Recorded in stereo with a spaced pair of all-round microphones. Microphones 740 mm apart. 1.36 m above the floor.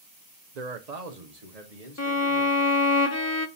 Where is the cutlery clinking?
No cutlery clinking in this recording.